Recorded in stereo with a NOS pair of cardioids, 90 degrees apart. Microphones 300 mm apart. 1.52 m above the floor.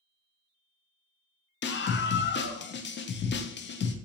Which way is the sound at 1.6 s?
40° left.